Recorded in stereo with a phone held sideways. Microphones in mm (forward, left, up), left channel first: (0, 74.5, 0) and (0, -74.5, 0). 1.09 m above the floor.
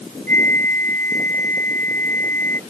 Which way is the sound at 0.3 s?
60° right (ahead or behind).